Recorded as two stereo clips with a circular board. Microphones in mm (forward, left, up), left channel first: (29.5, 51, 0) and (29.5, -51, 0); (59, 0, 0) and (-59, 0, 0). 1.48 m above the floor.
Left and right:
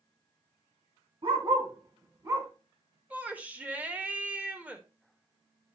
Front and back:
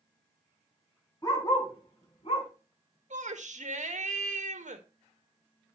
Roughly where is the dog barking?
Ahead right.